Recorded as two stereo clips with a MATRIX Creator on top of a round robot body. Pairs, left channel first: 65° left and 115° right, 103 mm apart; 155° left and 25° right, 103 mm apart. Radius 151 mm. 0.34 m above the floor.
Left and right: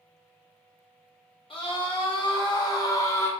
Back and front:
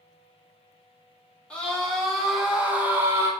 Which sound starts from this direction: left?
A scream, at 1.5 s.